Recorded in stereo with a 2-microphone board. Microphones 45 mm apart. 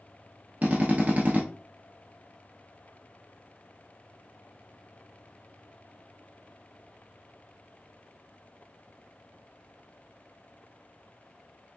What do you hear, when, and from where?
0.6 s a drill: 35° right (ahead or behind), 1.3 m